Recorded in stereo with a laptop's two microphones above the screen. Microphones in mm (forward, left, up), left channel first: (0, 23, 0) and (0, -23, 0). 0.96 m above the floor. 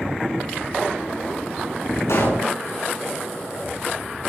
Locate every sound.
2.1 s a pop: 90° left, 6 m